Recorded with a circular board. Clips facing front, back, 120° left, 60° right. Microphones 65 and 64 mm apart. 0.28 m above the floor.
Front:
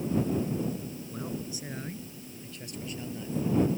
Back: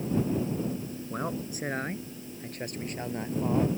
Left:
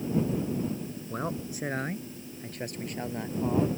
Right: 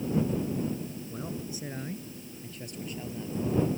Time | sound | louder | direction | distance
1.1 | a man speaking | back 4 dB, left 7 dB | 145° left | ?